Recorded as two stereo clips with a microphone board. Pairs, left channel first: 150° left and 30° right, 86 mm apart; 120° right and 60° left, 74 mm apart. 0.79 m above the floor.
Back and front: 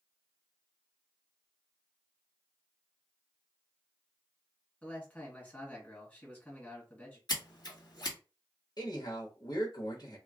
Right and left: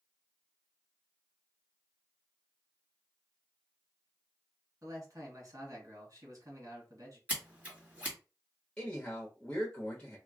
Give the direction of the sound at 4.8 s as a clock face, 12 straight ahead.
9 o'clock.